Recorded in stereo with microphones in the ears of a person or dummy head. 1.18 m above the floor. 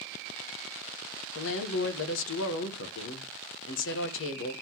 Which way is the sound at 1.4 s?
65° left (ahead or behind).